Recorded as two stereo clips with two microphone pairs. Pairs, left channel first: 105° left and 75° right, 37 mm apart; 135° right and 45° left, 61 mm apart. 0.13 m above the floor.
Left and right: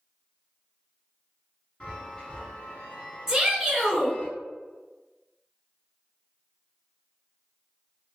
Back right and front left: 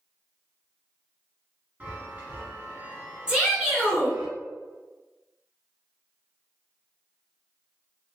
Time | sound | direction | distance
1.8 | a chime | 70° left | 1.3 m
3.3 | a shout | 15° right | 1.3 m